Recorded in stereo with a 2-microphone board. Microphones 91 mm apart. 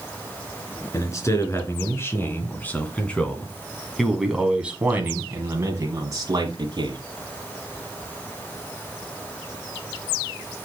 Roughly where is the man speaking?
Left.